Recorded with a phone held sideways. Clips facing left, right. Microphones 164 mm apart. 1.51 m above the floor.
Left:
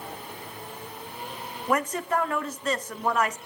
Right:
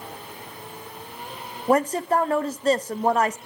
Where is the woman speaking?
35° right (ahead or behind), 0.5 m.